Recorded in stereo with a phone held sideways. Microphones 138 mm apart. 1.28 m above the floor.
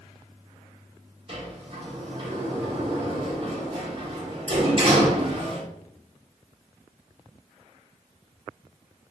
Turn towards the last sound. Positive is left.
turn(degrees=-45)  # may be behind; listen again after turning